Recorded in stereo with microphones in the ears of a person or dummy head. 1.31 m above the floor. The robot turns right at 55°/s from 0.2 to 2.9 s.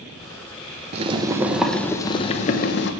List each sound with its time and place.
0.9 s boiling: 40° right, 1.1 m; by 2.9 s 70° left, 1.1 m